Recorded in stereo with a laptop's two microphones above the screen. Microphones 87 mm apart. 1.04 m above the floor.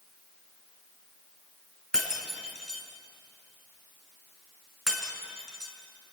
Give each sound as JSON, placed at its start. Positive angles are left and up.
{"t": 1.9, "sound": "breaking glass", "side_deg": -5, "distance_m": 4.5}